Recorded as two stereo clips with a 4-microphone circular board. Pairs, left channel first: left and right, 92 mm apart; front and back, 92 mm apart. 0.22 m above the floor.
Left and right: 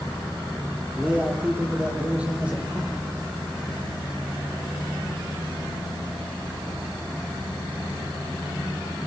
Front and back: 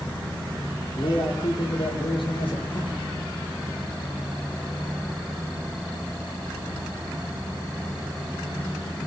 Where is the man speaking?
15° right, 7 m.